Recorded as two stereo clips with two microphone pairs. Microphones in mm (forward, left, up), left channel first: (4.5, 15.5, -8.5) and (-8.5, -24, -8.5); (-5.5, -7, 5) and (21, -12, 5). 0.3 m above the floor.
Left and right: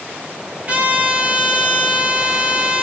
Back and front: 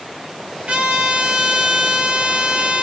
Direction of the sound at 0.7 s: 50° right.